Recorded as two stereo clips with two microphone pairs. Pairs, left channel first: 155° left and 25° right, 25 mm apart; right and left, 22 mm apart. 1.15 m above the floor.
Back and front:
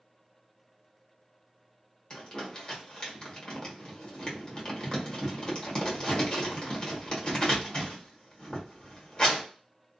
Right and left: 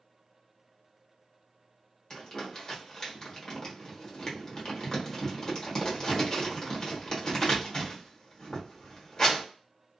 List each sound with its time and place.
2.1 s crumpling: 150° right, 1.0 m